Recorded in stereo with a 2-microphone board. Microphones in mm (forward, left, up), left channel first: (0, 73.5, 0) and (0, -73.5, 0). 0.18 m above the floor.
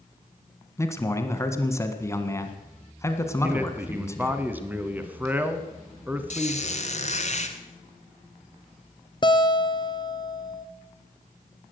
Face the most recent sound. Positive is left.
turn(degrees=30)  # may be behind; listen again after turning